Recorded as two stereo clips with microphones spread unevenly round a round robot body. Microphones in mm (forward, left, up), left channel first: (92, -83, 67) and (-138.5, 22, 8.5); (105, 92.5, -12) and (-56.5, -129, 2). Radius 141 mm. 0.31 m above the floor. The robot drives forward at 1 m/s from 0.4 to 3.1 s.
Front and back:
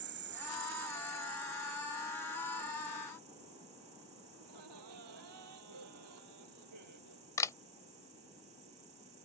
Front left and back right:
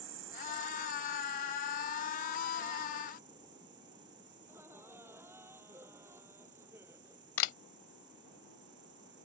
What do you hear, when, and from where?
0.0 s an insect: 170° right; by 9.2 s straight behind
4.4 s laughter: 150° left
7.4 s a camera shutter: 60° left